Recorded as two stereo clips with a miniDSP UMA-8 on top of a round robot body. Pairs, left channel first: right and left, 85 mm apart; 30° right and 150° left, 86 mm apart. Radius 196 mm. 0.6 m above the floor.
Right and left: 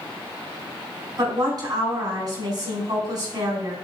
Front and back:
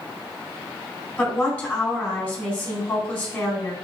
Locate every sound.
1.2 s a woman speaking: 40° left, 4 m